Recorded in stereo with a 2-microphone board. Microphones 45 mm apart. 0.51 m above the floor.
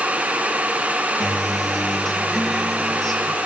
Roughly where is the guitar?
Centre.